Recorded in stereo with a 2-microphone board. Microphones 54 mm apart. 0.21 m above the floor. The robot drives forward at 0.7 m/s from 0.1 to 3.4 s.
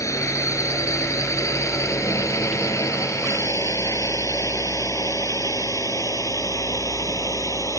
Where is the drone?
70° left (ahead or behind); by 7.8 s 75° left (ahead or behind).